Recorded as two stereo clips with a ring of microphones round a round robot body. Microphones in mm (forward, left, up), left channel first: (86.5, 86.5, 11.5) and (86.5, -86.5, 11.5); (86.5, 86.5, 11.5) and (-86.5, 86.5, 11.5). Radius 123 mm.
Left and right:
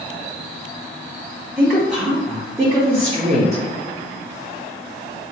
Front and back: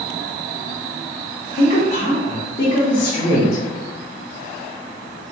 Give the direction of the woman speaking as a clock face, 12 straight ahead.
12 o'clock.